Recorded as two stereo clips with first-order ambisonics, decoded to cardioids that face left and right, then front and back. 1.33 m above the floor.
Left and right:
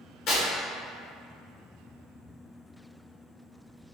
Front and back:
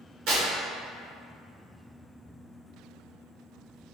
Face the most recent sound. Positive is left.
turn(degrees=140)